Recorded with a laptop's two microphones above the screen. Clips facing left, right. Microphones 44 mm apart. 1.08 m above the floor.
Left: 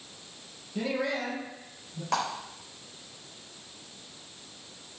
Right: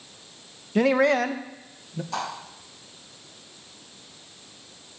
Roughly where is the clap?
Left.